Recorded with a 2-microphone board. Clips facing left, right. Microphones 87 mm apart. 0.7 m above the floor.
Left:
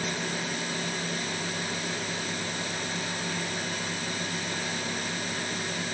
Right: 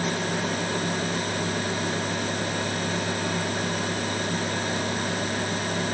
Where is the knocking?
No knocking in this recording.